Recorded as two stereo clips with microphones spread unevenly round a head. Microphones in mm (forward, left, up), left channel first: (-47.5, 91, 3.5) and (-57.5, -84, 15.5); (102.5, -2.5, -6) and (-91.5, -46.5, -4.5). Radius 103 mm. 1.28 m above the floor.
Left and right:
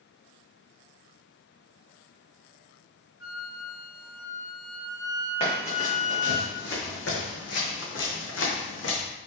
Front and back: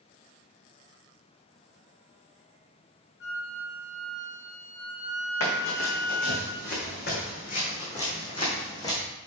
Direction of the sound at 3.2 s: 45° left.